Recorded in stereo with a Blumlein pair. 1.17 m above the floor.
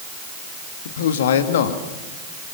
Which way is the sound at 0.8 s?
60° left.